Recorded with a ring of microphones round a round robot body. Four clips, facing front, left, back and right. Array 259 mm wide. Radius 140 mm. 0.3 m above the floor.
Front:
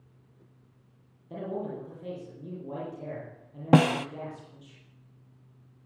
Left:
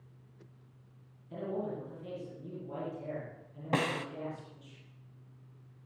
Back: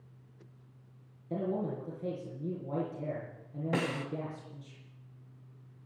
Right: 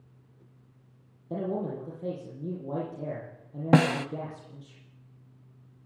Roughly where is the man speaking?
Right.